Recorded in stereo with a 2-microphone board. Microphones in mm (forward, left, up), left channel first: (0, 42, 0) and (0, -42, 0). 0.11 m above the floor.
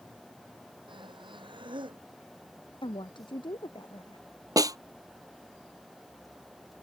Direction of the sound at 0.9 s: 75° right (ahead or behind).